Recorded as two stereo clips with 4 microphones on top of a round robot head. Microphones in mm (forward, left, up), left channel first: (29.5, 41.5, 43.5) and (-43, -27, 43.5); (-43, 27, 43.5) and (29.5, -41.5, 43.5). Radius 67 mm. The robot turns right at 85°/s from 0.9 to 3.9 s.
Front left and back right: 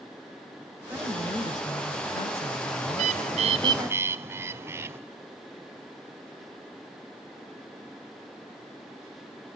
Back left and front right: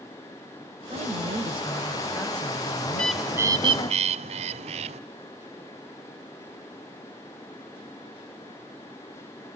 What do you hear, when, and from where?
0.9 s a woman speaking: 65° right, 2 m; by 3.9 s 175° right, 2 m
2.9 s a bird: 155° right, 0.6 m; by 5.0 s 70° right, 0.6 m